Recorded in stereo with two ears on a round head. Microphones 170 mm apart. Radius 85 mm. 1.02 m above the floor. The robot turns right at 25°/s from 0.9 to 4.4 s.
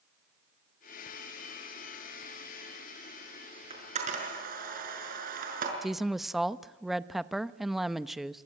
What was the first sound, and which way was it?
A camera shutter, 30° right (ahead or behind).